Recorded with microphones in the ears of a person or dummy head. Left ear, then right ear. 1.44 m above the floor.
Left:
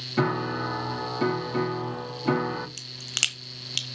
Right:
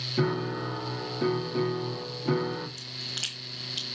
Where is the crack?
60° left (ahead or behind), 1.1 m.